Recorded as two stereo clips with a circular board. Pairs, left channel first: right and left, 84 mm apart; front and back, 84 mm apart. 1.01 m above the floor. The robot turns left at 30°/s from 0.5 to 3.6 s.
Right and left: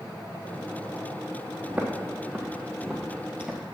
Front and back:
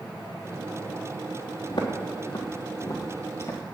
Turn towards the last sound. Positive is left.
turn(degrees=20)